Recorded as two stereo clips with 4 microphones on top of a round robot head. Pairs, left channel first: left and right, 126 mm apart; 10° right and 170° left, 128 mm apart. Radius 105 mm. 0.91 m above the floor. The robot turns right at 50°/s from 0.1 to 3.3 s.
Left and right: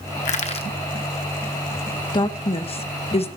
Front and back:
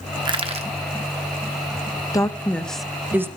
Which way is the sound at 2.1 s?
45° left.